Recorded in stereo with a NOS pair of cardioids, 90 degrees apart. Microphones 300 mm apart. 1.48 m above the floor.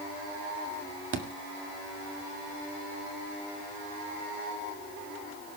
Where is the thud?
40° right, 2.5 m.